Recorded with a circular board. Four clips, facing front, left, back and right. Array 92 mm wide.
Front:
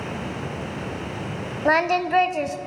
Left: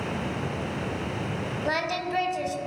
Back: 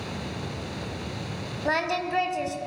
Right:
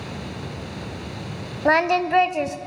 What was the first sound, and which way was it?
Singing, 55° right.